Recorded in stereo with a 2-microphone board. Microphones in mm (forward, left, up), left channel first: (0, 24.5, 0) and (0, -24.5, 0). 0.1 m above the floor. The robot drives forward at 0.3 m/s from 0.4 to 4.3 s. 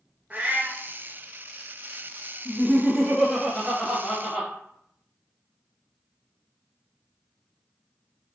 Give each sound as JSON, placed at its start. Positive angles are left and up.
{"t": 0.3, "sound": "a cat meowing", "side_deg": -30, "distance_m": 0.7}
{"t": 2.5, "sound": "laughter", "side_deg": -15, "distance_m": 1.6}